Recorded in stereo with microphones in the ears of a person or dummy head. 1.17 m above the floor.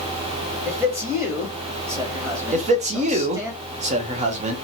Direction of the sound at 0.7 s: 15° right (ahead or behind).